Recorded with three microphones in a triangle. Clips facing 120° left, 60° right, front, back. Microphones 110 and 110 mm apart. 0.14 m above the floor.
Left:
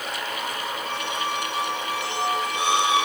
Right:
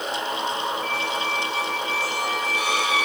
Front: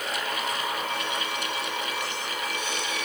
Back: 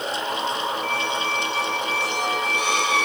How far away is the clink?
No clink in this recording.